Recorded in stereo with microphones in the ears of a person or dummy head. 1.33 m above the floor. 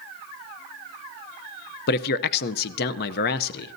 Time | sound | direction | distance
1.9 | a man speaking | 50° left (ahead or behind) | 0.7 m